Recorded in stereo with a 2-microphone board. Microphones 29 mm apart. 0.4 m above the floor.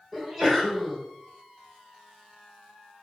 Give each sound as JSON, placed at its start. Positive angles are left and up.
{"t": 0.1, "sound": "a sneeze", "side_deg": 5, "distance_m": 1.0}